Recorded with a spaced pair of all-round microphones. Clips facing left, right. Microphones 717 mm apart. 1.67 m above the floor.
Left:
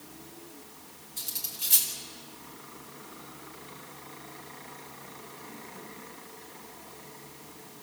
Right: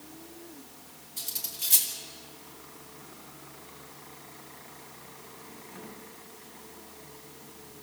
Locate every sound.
1.2 s cutlery clinking: 5° right (ahead or behind), 2.5 m